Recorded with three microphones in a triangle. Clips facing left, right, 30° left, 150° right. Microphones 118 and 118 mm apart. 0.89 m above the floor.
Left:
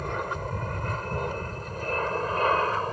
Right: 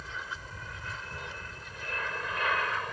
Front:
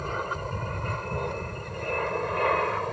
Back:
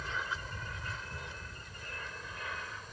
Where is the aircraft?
65° left; by 2.9 s 35° left.